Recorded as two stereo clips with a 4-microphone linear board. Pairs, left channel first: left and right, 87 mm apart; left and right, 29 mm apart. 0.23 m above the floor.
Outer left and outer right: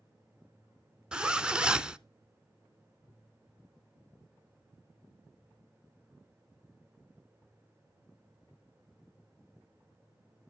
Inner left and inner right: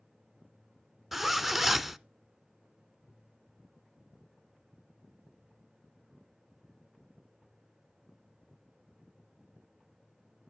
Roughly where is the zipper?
Centre.